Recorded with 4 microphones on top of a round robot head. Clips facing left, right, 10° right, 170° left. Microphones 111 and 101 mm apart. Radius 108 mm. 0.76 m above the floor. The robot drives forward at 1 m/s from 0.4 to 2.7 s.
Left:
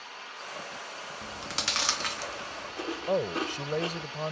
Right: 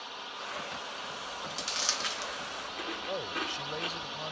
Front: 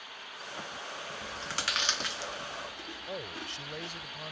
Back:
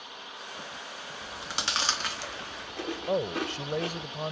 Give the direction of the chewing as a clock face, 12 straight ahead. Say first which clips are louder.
Left 2 dB, back 3 dB; 9 o'clock.